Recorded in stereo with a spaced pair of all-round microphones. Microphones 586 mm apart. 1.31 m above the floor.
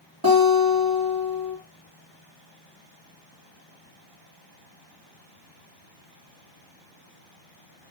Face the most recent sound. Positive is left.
turn(degrees=-35)  # may be behind; listen again after turning